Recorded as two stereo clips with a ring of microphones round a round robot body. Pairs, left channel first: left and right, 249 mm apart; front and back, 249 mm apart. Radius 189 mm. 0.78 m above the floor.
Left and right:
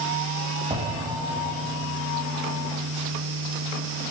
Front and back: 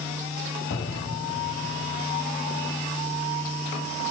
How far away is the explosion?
About 2 m.